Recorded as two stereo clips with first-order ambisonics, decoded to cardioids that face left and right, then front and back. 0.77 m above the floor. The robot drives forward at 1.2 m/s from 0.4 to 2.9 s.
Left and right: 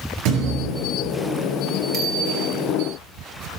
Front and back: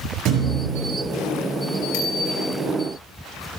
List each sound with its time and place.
0.2 s a thud: 125° right, 6.5 m; by 0.9 s 130° right, 7 m
1.9 s a bicycle bell: 20° right, 3 m; by 2.5 s 30° right, 2.5 m